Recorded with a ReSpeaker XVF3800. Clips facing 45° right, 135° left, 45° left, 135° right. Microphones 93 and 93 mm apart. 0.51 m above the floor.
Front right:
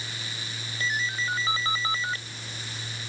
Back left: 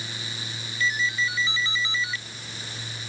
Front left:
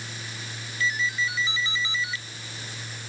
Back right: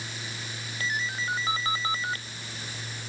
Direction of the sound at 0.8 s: 90° right.